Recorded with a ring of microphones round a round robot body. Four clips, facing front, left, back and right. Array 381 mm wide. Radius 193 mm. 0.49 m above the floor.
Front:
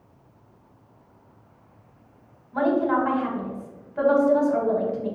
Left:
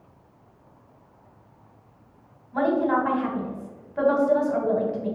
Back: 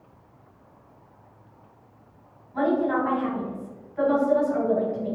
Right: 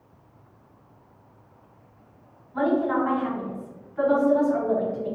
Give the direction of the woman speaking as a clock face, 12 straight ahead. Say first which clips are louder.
Left 1 dB, front 1 dB; 10 o'clock.